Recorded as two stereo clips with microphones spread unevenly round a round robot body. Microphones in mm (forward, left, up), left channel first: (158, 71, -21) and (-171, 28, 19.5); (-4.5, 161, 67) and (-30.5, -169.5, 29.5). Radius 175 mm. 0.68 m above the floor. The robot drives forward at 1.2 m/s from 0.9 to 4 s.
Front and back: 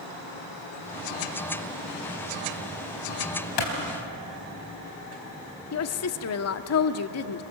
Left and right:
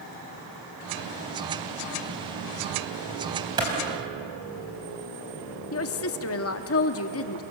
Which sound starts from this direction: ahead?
A clap, at 3.6 s.